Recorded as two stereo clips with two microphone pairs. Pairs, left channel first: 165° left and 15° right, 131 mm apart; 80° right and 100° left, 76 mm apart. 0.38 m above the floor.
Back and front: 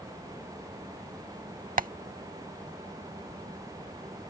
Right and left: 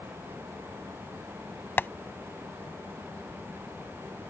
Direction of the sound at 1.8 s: 20° right.